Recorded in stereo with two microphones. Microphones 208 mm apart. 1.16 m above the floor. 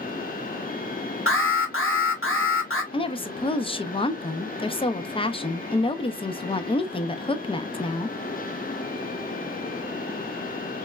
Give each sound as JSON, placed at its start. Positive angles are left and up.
{"t": 1.3, "sound": "an alarm", "side_deg": 80, "distance_m": 1.2}
{"t": 2.9, "sound": "a woman speaking", "side_deg": 25, "distance_m": 0.6}